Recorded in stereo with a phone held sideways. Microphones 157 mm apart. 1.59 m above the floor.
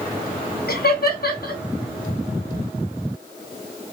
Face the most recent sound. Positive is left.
turn(degrees=75)  # may be behind; listen again after turning